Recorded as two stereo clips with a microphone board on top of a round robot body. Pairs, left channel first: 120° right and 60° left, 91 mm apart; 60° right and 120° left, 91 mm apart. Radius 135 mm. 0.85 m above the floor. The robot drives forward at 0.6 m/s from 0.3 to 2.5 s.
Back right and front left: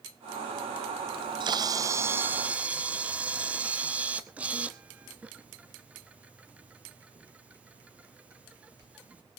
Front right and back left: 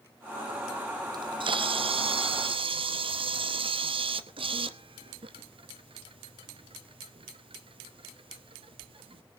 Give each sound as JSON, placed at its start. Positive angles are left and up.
{"t": 1.1, "sound": "a camera shutter", "azimuth_deg": 80, "distance_m": 0.7}